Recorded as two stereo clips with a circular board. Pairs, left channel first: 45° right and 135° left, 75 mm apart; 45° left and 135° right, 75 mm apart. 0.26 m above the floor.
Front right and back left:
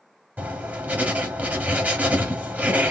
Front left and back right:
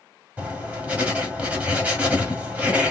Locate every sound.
0.4 s writing: 175° left, 1.3 m